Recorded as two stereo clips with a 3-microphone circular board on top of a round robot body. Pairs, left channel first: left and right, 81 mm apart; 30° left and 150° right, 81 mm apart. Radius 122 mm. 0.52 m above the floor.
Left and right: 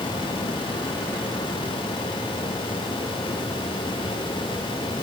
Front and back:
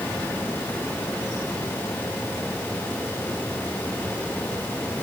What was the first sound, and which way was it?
Only background noise.